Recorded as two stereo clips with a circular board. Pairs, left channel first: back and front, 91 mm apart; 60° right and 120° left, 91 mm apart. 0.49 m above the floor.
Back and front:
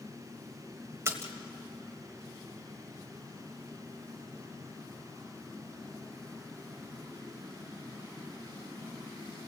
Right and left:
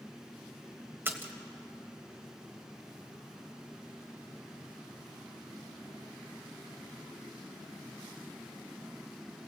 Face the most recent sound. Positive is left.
turn(degrees=55)